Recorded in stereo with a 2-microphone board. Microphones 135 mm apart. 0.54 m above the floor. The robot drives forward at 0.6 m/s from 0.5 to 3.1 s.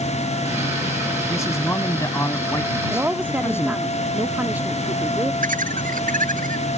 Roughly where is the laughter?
Right.